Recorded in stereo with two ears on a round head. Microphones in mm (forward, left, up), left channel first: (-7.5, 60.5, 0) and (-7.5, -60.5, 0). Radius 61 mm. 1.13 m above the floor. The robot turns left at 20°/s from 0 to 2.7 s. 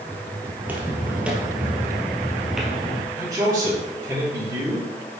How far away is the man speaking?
About 4.5 m.